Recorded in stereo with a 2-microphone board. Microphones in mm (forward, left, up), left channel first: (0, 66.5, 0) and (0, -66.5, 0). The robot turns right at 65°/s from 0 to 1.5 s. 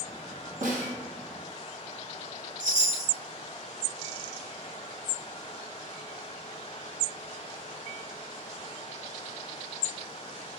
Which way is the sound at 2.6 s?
30° right (ahead or behind).